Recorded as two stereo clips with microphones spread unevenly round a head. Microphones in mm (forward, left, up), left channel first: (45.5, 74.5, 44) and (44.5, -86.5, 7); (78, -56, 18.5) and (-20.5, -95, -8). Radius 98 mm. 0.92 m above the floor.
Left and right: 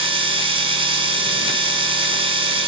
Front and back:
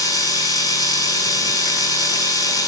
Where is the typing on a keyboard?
No typing on a keyboard in this recording.